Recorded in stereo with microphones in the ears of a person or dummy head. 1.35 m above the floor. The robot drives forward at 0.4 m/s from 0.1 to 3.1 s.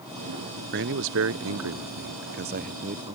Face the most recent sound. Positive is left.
turn(degrees=-35)  # may be behind; listen again after turning